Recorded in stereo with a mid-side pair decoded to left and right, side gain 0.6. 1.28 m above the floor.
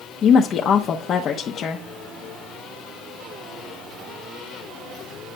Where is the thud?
No thud in this recording.